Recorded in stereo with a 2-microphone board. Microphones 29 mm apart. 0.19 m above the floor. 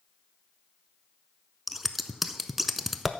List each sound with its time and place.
1.7 s scissors: 10° right (ahead or behind), 0.5 m